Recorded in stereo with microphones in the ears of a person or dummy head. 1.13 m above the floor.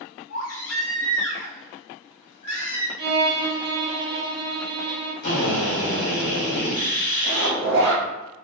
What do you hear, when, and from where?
0.3 s a baby crying: 70° left (ahead or behind), 0.9 m
3.0 s a violin: 30° right (ahead or behind), 0.8 m
5.2 s a drill: 55° left (ahead or behind), 1.0 m
7.2 s a zipper: 65° right (ahead or behind), 1.4 m